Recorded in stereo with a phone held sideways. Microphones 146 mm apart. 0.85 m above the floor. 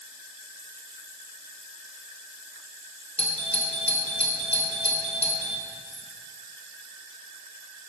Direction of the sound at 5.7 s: 60° left (ahead or behind).